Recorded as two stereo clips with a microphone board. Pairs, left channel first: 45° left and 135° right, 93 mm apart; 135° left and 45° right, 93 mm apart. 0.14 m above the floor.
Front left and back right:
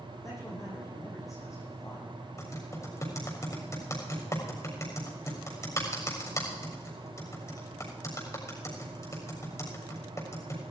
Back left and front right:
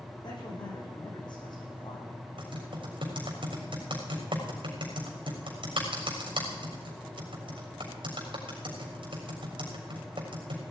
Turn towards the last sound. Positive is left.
turn(degrees=-10)